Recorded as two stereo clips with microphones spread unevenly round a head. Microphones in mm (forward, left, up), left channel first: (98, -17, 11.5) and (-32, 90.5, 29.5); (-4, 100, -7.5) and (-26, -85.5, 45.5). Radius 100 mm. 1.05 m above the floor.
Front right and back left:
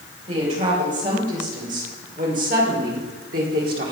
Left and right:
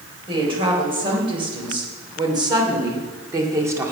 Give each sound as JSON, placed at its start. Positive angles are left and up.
{"t": 0.3, "sound": "a woman speaking", "azimuth_deg": -160, "distance_m": 4.0}